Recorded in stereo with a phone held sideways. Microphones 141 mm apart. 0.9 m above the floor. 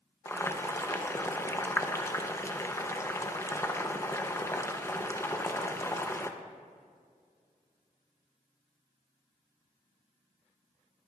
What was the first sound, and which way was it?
Boiling, 20° left (ahead or behind).